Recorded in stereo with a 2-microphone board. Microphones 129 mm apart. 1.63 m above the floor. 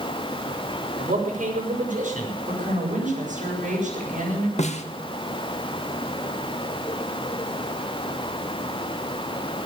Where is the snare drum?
60° left (ahead or behind), 1.3 m.